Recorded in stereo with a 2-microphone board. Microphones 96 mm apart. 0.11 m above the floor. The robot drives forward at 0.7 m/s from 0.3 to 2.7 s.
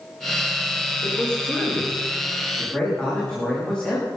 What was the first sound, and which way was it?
A man speaking, 10° left (ahead or behind).